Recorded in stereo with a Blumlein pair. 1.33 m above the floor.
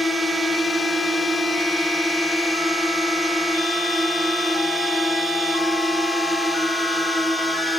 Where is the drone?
Straight ahead.